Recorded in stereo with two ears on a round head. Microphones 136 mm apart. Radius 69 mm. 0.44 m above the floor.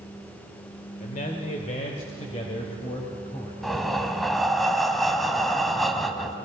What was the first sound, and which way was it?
A man speaking, 50° left (ahead or behind).